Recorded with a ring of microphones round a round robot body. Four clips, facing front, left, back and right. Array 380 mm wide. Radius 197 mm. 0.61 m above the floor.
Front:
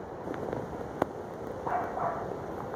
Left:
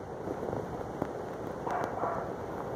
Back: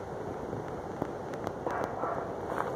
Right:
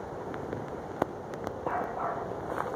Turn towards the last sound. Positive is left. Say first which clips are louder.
# even, front 3 dB
turn(degrees=-15)